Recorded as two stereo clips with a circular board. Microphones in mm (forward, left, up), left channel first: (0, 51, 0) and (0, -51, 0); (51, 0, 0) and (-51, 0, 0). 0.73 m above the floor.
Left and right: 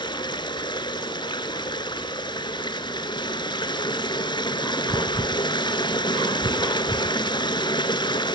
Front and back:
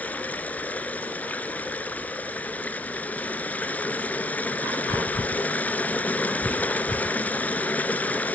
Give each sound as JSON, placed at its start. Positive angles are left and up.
{"t": 0.0, "sound": "running water", "azimuth_deg": 70, "distance_m": 1.0}